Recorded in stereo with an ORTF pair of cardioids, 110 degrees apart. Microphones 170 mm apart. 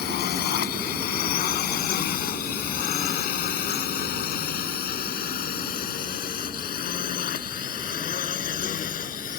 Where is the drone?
70° left; by 9.4 s 50° left.